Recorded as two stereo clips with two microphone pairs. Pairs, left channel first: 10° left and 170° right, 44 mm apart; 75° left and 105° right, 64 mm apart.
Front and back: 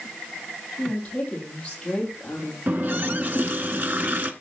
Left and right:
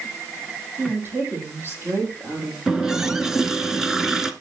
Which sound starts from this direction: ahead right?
A woman speaking, at 0.8 s.